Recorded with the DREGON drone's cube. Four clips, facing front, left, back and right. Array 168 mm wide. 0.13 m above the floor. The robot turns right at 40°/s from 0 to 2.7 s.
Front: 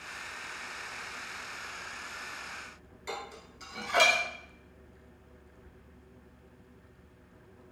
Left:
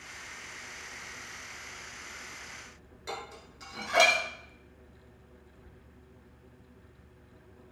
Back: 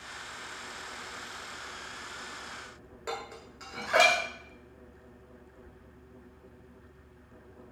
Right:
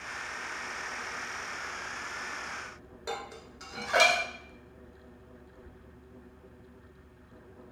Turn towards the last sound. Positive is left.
turn(degrees=-150)